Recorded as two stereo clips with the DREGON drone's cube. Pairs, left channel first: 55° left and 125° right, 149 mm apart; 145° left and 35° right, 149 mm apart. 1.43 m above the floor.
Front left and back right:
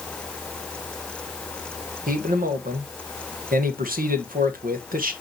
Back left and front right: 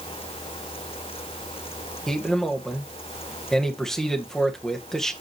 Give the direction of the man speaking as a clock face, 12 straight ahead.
4 o'clock.